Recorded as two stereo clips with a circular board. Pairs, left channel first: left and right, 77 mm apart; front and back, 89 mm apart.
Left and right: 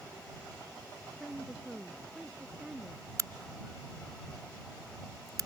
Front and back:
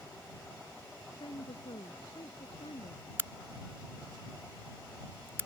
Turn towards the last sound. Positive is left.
turn(degrees=-125)